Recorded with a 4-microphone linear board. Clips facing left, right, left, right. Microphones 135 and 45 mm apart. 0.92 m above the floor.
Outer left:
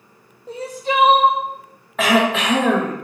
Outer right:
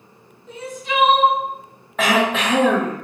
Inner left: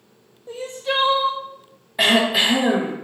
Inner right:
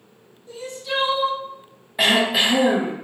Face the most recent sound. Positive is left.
turn(degrees=0)  # may be behind; listen again after turning